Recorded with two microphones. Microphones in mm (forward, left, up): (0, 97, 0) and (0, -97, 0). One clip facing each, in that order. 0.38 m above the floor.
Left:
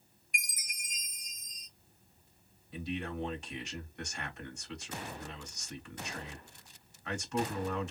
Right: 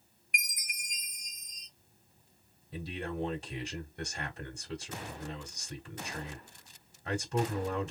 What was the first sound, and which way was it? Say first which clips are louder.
A chime: right 2 dB; 65° right (ahead or behind).